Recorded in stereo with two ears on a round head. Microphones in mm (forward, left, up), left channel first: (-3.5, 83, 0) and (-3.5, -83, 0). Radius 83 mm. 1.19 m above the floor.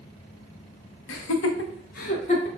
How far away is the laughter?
About 0.8 m.